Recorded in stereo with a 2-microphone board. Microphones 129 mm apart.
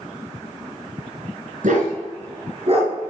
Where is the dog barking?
85° right, 1.8 m; by 2.9 s 45° right (ahead or behind), 1.9 m.